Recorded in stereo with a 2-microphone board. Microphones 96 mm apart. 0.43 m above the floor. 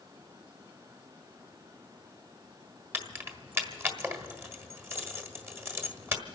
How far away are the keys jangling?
About 1.4 m.